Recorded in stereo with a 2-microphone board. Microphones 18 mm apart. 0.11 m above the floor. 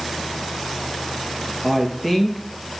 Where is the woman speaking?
Centre (ahead or behind), 2 m.